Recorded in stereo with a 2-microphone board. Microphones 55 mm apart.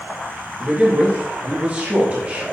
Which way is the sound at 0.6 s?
25° right (ahead or behind).